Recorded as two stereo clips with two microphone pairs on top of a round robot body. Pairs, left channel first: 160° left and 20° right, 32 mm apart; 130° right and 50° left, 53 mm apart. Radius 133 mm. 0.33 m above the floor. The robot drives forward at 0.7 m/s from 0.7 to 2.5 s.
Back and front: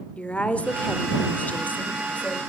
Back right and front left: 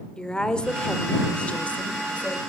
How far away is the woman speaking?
About 1.5 m.